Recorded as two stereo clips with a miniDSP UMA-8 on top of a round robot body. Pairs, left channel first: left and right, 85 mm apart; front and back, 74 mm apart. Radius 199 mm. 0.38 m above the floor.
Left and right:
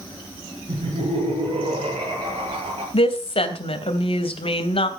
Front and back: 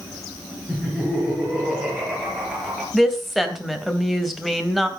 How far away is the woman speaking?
About 3.5 m.